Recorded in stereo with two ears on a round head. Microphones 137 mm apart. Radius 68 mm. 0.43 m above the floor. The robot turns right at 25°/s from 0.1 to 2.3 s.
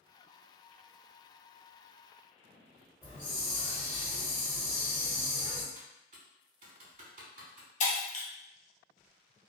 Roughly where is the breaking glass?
Left.